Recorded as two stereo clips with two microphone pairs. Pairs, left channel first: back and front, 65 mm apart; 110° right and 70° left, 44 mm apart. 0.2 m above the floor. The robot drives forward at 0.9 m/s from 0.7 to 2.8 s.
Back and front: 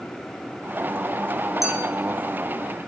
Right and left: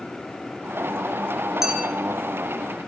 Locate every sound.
1.6 s a clink: 145° left, 2.0 m; by 1.9 s 150° left, 2 m